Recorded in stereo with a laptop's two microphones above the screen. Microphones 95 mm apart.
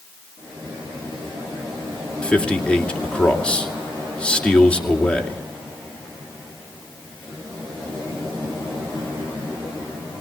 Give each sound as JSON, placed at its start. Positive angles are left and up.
{"t": 2.2, "sound": "a man speaking", "side_deg": 10, "distance_m": 2.5}